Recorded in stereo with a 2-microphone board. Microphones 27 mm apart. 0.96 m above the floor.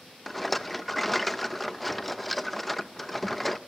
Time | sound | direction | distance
0.3 | a rattle | centre (ahead or behind) | 0.8 m